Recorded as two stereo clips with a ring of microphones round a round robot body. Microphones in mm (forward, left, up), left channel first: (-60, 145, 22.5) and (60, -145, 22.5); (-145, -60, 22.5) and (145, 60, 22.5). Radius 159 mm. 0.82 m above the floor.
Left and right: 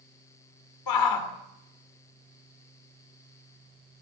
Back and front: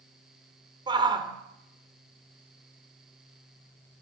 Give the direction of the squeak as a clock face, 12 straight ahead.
I don't hear a squeak.